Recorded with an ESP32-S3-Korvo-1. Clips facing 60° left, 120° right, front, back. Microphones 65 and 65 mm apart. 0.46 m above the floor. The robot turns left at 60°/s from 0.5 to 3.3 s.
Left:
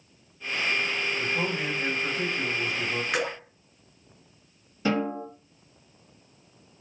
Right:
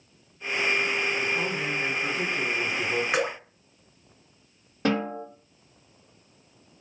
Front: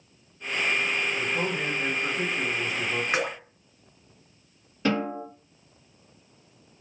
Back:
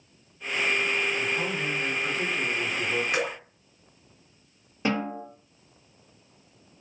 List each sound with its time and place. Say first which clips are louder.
1.2 s a man speaking: right 1 dB, front 1 dB; 10° left, 1.1 m; by 3.0 s 100° right, 1.1 m
3.1 s dripping: right 1 dB, front 1 dB; 55° right, 2.5 m; by 3.4 s 65° right, 2.5 m
4.8 s a snare drum: even, front 2 dB; 110° right, 2.5 m